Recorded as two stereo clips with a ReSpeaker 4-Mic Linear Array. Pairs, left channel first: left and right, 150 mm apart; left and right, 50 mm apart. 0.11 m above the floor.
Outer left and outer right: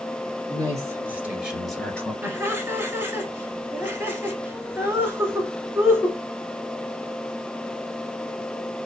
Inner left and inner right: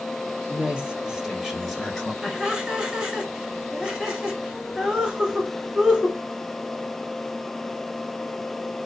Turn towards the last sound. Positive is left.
turn(degrees=-15)  # may be behind; listen again after turning